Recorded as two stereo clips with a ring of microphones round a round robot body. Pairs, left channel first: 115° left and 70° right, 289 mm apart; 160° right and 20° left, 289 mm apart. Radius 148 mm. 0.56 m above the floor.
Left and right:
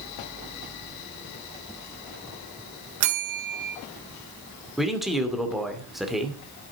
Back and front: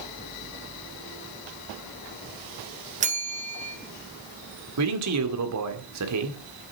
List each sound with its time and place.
3.0 s a bell: 40° right, 1.9 m
4.8 s a man speaking: 20° left, 2 m